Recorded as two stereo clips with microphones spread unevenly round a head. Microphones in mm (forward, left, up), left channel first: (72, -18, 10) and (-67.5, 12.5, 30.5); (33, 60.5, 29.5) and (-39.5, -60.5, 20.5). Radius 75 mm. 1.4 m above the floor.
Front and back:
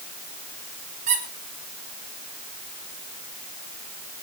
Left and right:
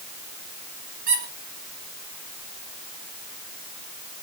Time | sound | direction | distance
1.1 | a squeak | 150° right | 7.5 m